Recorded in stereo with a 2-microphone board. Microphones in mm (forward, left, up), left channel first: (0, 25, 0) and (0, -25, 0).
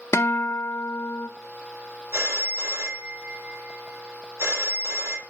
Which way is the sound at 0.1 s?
65° left (ahead or behind).